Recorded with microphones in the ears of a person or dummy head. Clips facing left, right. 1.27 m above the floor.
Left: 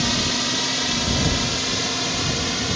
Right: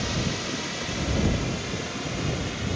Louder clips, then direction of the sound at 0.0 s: Left 4 dB; 65° left (ahead or behind).